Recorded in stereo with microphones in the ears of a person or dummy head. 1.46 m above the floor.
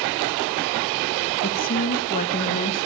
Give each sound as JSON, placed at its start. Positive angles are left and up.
{"t": 1.4, "sound": "a woman speaking", "side_deg": 40, "distance_m": 1.4}